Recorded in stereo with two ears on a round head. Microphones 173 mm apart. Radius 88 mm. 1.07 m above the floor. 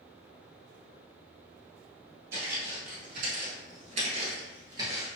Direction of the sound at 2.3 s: 55° right (ahead or behind).